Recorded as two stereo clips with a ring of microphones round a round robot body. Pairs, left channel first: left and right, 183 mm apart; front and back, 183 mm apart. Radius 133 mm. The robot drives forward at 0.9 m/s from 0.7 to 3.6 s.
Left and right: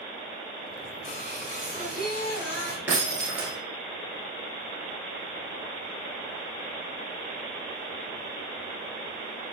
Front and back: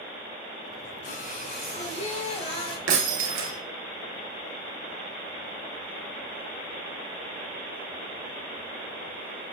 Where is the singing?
35° left, 3 m; by 2.8 s 60° left, 2 m.